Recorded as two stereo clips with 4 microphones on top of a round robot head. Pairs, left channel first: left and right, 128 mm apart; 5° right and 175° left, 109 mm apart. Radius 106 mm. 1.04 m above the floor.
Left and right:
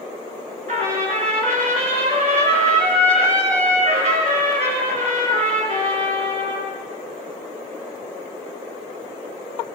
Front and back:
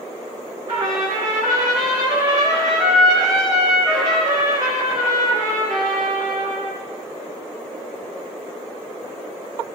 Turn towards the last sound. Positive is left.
turn(degrees=-115)